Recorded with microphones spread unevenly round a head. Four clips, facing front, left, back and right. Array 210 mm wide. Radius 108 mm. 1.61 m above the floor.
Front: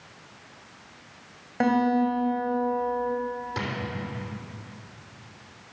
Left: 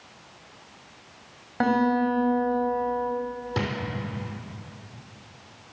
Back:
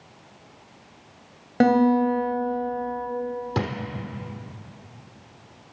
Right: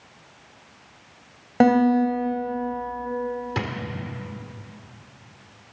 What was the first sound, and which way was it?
A guitar, 145° right.